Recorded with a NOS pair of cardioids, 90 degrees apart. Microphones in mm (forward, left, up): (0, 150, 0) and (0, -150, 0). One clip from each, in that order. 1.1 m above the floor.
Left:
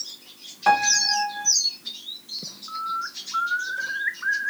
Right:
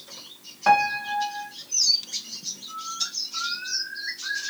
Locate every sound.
0.7 s a piano: straight ahead, 0.6 m
2.7 s a bird: 65° left, 0.6 m